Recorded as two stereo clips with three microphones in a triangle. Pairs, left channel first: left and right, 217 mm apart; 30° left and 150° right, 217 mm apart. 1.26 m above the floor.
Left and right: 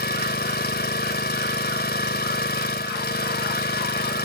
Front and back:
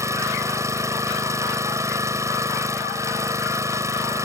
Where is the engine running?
135° left.